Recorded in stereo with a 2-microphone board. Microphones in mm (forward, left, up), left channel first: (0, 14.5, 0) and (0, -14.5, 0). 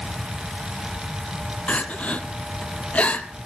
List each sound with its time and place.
1.7 s crying: 50° left (ahead or behind), 1.0 m